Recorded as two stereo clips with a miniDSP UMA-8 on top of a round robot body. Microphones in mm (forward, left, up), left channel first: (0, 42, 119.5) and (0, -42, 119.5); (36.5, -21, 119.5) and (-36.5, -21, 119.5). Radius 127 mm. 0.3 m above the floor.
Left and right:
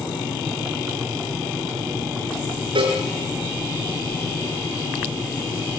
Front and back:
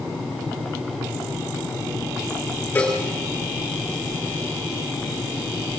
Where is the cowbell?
70° right, 6.5 m.